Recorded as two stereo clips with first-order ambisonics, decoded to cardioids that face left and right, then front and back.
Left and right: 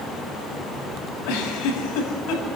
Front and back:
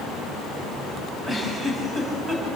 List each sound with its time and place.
1.2 s a giggle: 100° left, 6.5 m